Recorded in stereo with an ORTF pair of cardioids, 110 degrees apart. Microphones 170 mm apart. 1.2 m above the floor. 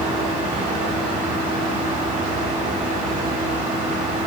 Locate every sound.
0.0 s a fan: 55° right, 3.5 m